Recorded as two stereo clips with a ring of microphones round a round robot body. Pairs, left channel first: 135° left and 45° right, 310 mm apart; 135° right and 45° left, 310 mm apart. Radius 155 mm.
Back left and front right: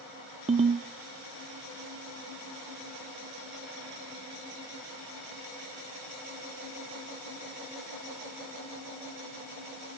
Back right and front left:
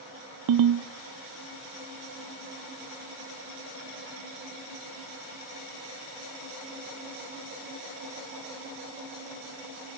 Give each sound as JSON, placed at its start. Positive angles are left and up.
{"t": 0.5, "sound": "a ringtone", "azimuth_deg": 25, "distance_m": 0.7}